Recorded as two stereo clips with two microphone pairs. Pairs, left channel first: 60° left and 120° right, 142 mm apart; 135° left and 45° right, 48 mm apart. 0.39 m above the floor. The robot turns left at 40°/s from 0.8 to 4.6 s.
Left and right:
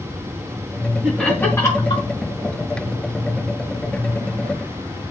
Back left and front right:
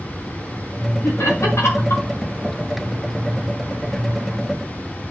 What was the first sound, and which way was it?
Laughter, 150° left.